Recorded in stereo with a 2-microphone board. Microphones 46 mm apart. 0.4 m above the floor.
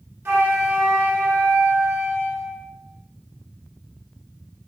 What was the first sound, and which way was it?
A flute, 65° right (ahead or behind).